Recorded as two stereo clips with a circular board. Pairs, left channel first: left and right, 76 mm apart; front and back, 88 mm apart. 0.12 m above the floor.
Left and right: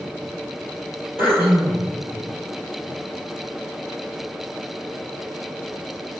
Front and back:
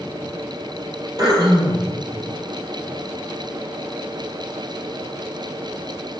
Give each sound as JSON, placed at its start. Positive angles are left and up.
{"t": 1.2, "sound": "throat clearing", "azimuth_deg": -145, "distance_m": 1.9}